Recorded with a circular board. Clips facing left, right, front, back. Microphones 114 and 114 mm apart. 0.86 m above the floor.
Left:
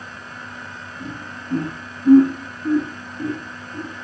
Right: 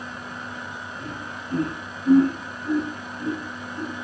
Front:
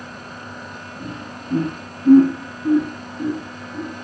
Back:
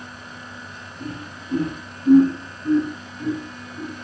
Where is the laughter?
20° left, 6 m; by 3.9 s 30° left, 7 m.